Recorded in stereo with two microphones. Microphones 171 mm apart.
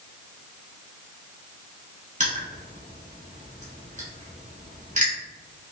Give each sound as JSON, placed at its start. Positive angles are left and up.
{"t": 2.2, "sound": "crushing", "side_deg": -45, "distance_m": 1.4}